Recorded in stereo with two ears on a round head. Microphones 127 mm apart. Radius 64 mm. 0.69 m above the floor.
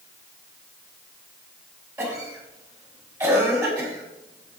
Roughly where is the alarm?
I don't hear an alarm.